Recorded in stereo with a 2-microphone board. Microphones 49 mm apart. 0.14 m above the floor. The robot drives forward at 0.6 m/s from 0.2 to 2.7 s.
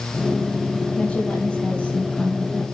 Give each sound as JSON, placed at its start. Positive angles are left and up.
{"t": 1.0, "sound": "a woman speaking", "side_deg": 20, "distance_m": 3.5}